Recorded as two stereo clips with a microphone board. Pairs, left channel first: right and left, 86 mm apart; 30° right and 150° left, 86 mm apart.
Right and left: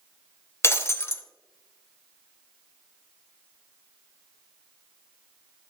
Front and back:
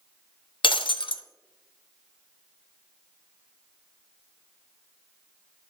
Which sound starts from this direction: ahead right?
Breaking glass, at 0.6 s.